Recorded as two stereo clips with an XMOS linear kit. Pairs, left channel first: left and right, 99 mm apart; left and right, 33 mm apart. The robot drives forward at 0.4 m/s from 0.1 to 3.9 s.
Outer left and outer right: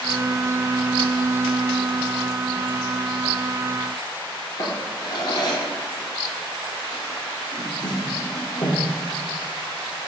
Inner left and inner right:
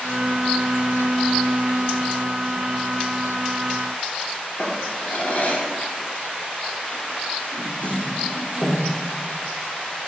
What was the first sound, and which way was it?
A drawer, 50° left (ahead or behind).